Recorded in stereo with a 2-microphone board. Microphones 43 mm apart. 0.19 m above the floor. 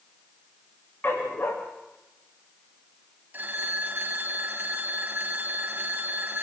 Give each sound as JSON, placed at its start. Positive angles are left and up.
{"t": 1.0, "sound": "a dog barking", "side_deg": 40, "distance_m": 7.0}
{"t": 3.3, "sound": "a phone ringing", "side_deg": -45, "distance_m": 2.5}